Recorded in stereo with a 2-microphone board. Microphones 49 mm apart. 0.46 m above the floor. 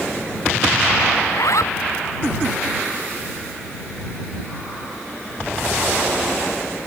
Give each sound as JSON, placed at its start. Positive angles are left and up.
{"t": 1.2, "sound": "a zipper", "side_deg": 80}